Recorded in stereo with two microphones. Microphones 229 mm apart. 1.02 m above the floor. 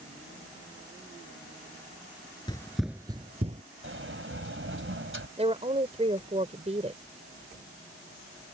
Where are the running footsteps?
20° left (ahead or behind); by 3.6 s 30° right (ahead or behind).